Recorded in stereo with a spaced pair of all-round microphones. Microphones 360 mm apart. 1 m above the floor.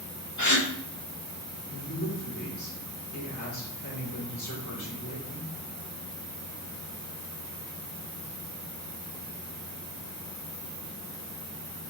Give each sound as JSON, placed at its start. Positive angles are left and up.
{"t": 0.4, "sound": "a gasp", "side_deg": 50, "distance_m": 1.2}
{"t": 1.7, "sound": "a woman speaking", "side_deg": 50, "distance_m": 3.5}